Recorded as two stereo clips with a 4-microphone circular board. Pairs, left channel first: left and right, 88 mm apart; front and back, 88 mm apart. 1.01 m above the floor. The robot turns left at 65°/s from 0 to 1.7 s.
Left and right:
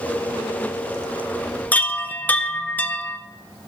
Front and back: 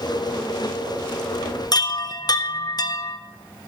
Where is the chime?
20° left, 0.6 m.